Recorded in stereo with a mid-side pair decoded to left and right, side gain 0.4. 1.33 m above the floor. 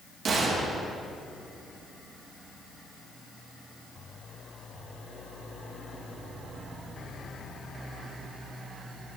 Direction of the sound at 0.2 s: 50° right.